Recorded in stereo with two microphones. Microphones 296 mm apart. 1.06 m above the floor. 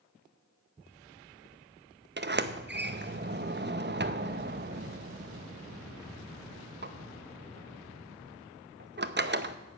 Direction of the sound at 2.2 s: 35° right (ahead or behind).